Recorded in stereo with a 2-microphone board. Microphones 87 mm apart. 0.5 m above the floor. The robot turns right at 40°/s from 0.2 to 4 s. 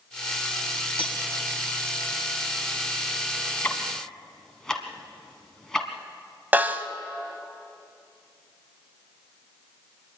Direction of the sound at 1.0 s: 80° left.